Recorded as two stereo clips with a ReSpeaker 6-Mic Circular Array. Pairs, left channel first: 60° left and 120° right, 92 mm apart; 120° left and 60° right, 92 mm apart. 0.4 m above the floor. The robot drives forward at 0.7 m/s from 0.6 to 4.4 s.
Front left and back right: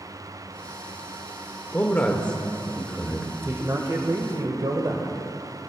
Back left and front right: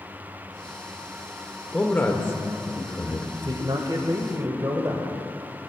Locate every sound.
1.7 s a man speaking: 70° left, 1.2 m; by 3.3 s 155° left, 1.5 m
3.4 s a man speaking: 65° right, 1.3 m; by 5.2 s 105° right, 1.2 m